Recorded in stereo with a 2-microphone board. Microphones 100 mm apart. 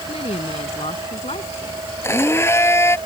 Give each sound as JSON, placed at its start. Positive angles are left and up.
{"t": 0.1, "sound": "a woman speaking", "side_deg": 75}
{"t": 2.0, "sound": "a blender", "side_deg": 25}